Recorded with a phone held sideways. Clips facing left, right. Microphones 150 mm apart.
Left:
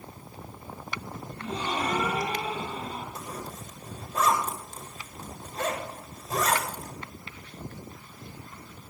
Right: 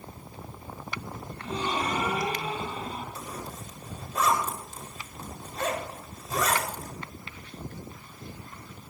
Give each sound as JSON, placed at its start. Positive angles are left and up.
{"t": 1.4, "sound": "a gasp", "side_deg": 45, "distance_m": 8.0}
{"t": 3.1, "sound": "a zipper", "side_deg": 50, "distance_m": 6.0}